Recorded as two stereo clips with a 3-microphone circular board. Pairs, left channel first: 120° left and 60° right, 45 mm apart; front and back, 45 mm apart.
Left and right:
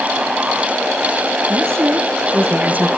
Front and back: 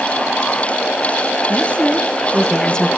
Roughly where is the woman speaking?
Ahead right.